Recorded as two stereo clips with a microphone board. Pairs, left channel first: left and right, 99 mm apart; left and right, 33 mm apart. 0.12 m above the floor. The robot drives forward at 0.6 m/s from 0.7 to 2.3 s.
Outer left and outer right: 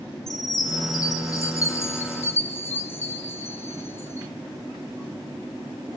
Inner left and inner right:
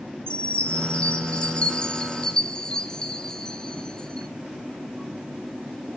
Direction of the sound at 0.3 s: 40° left (ahead or behind).